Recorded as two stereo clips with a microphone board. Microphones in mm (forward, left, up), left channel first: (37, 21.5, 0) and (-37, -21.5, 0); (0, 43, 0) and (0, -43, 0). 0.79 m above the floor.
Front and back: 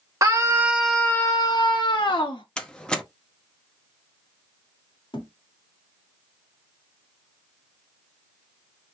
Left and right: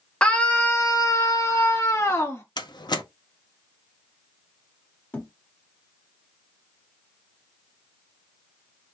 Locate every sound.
0.2 s a scream: 165° left, 0.8 m; by 2.4 s 25° left, 1.2 m
2.6 s a door slam: 110° left, 0.7 m
5.1 s a thud: 15° left, 1.1 m